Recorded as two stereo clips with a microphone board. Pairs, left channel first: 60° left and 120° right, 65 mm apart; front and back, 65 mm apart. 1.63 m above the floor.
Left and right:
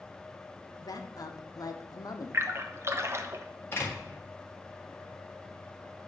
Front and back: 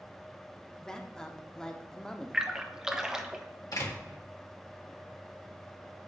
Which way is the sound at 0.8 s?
80° left.